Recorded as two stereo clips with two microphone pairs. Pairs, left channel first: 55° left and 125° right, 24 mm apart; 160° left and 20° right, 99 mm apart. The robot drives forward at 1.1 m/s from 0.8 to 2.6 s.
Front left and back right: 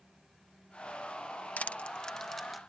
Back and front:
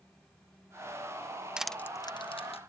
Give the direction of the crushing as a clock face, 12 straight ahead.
10 o'clock.